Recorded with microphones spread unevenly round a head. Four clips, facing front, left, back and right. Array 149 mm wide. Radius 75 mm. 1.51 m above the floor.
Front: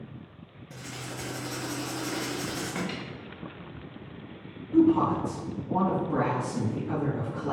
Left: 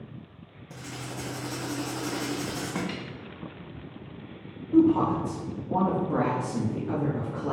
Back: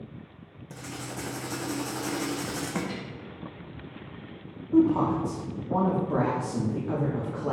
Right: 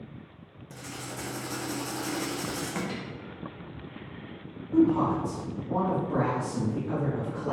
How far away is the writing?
About 0.6 m.